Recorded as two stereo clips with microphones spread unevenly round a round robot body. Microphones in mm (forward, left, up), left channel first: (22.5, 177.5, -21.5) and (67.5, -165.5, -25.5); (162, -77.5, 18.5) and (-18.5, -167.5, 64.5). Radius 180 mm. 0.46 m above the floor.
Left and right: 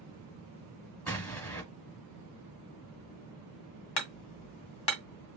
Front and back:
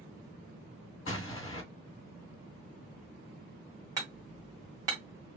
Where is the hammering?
125° left, 1.1 m.